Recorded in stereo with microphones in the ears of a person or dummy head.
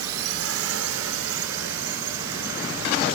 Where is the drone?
80° right; by 3.1 s 70° right (ahead or behind).